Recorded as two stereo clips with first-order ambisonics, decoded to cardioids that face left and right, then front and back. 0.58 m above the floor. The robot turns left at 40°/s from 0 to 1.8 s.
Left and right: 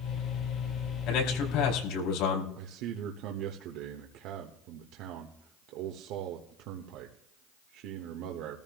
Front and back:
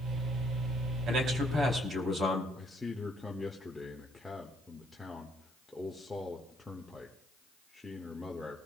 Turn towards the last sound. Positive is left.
turn(degrees=-85)